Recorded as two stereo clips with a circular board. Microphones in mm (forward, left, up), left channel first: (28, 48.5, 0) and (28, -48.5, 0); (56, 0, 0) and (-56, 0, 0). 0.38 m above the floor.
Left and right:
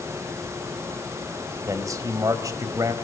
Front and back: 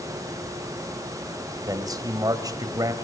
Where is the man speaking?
135° right, 2 m.